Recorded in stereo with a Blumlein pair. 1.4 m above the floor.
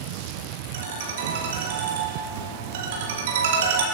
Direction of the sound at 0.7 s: 55° right.